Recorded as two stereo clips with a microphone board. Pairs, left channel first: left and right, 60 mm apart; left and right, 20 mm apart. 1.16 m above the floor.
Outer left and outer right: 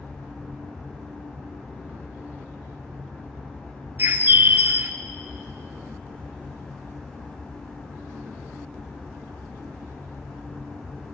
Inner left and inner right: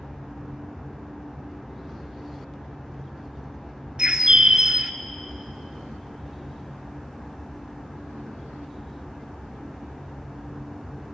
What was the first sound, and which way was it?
A bird, 35° right (ahead or behind).